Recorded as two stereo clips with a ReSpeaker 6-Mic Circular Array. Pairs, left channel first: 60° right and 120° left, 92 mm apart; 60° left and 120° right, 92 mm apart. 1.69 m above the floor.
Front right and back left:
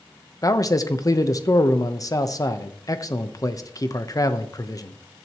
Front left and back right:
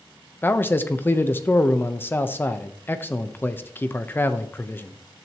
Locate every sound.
0.4 s a man speaking: 10° right, 1.0 m